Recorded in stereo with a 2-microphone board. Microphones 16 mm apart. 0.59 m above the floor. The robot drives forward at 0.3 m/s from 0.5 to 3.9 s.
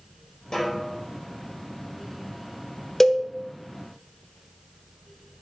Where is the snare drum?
45° left (ahead or behind), 5 m.